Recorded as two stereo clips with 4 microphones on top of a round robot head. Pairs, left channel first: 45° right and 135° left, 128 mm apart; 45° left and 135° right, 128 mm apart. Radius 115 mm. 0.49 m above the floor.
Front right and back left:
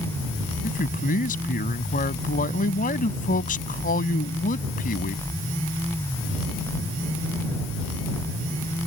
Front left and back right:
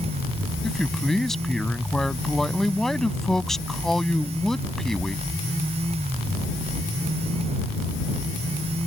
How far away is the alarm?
No alarm in this recording.